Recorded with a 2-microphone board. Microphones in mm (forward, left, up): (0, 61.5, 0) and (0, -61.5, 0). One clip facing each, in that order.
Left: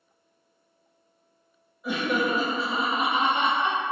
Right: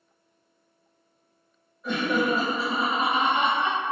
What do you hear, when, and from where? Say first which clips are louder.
1.8 s laughter: right 1 dB; 10° left (ahead or behind), 1.1 m; by 3.8 s 25° left (ahead or behind), 2 m